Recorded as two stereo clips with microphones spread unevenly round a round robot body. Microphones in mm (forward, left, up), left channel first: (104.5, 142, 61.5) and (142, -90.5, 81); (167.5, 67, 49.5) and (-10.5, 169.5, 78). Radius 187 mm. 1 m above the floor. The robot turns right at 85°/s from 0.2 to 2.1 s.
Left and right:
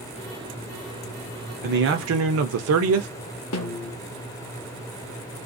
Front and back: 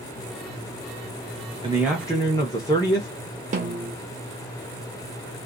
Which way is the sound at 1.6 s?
140° right.